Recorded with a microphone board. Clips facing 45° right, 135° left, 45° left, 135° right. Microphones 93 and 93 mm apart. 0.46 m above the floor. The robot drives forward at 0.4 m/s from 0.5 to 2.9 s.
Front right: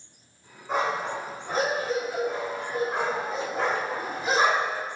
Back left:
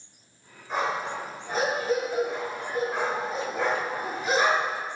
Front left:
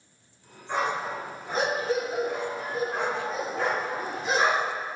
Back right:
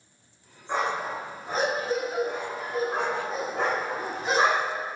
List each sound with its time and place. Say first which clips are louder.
0.7 s a dog barking: front right 2 dB, even; 60° right, 1.1 m; by 4.8 s 110° right, 1.1 m